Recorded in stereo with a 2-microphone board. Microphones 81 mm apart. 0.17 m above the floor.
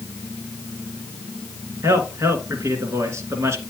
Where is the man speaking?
35° right (ahead or behind), 1.8 m.